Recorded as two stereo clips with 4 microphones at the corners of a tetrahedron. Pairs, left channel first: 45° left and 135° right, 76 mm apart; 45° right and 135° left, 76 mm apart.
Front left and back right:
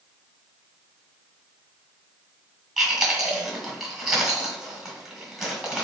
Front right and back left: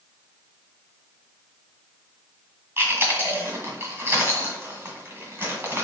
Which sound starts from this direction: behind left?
Chewing, at 2.8 s.